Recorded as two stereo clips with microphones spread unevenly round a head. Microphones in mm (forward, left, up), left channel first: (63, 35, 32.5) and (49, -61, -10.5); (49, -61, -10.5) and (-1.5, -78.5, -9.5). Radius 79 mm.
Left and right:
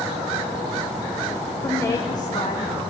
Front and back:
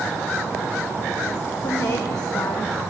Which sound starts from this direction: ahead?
A woman speaking, at 1.6 s.